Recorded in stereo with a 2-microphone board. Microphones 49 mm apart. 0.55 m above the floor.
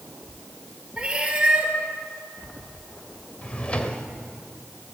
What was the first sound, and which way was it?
A cat meowing, 20° right (ahead or behind).